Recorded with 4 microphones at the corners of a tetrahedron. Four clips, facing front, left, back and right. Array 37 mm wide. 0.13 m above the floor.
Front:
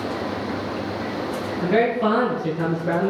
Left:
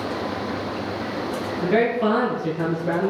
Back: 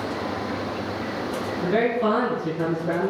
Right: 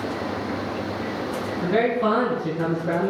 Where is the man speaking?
65° left, 3 m; by 3.1 s 45° left, 3.5 m.